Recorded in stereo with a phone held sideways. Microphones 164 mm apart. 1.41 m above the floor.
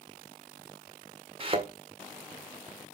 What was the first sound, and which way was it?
A thud, 40° right (ahead or behind).